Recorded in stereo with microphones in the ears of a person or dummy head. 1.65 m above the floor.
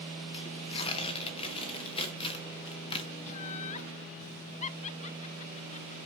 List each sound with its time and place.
0.3 s tearing paper: 35° left (ahead or behind), 1.4 m
3.3 s laughter: 40° left (ahead or behind), 0.6 m